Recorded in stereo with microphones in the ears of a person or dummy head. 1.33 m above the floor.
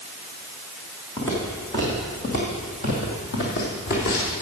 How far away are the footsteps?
About 3 m.